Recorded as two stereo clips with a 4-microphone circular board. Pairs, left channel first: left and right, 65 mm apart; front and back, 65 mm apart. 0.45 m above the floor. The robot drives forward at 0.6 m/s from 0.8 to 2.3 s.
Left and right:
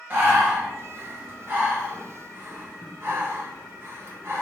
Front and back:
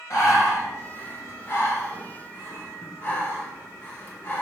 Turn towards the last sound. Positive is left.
turn(degrees=-55)